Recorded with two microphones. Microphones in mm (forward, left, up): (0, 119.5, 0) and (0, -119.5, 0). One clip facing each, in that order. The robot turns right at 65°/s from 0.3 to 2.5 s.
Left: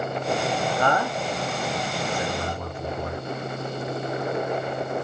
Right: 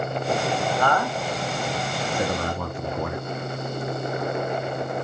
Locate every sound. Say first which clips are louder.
0.8 s a man speaking: even; 25° left (ahead or behind), 0.5 m; by 3.2 s 80° right, 0.5 m